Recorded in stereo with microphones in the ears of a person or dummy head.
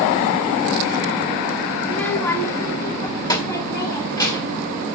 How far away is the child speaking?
About 0.6 m.